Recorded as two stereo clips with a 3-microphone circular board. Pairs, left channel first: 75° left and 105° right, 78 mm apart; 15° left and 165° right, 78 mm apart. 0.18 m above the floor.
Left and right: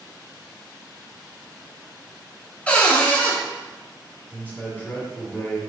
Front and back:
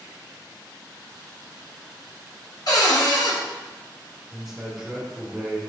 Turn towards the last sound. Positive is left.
turn(degrees=115)